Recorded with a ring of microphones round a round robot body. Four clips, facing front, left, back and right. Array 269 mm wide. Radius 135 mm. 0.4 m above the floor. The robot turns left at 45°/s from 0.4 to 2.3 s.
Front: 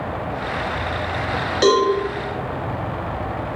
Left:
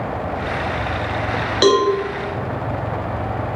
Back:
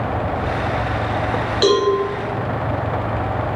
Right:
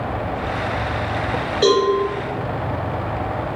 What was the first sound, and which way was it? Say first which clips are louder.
A cowbell: left 1 dB, front 1 dB; 80° left.